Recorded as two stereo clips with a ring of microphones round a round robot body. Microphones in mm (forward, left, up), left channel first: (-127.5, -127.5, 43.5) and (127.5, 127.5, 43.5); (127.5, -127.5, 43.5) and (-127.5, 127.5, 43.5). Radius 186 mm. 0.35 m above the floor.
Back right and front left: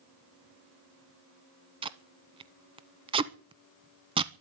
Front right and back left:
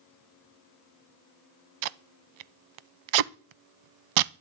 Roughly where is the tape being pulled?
Behind left.